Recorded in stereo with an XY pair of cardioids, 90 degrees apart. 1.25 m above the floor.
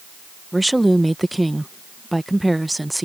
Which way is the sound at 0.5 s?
10° right.